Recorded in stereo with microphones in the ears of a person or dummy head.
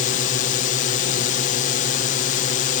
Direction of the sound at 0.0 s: 45° left (ahead or behind).